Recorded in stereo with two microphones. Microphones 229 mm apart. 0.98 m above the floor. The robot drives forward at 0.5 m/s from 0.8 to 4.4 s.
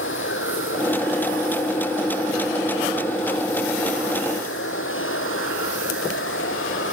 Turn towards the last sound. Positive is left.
turn(degrees=65)  # may be behind; listen again after turning